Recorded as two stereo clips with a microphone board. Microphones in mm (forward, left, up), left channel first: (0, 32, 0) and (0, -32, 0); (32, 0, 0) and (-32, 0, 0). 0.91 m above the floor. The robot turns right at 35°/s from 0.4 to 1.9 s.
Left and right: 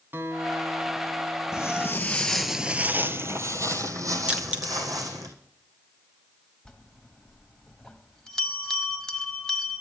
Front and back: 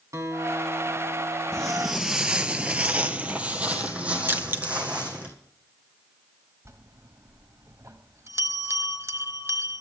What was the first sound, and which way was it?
A guitar, 145° right.